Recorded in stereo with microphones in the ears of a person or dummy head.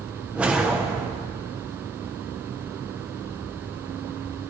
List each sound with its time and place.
0.3 s a whoosh: 5° right (ahead or behind), 1.2 m